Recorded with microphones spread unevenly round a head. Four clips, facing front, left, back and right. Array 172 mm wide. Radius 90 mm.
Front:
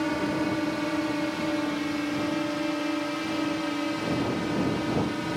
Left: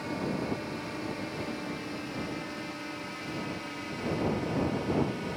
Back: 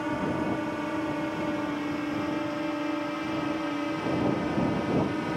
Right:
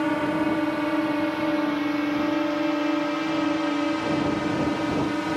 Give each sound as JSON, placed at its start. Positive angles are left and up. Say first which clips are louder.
{"t": 0.0, "sound": "a drone", "louder": "right 10 dB, front 2 dB", "azimuth_deg": -75}